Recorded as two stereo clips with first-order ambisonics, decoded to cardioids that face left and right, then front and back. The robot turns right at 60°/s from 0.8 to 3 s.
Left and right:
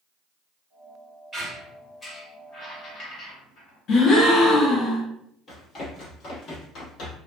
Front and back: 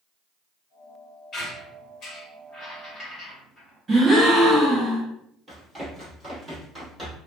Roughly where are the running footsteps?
Left.